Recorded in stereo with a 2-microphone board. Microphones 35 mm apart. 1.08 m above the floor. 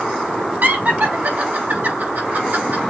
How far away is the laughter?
About 3 m.